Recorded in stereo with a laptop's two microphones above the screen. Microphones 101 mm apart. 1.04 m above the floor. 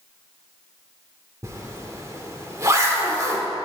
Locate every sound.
1.4 s a zipper: 30° right (ahead or behind), 2.5 m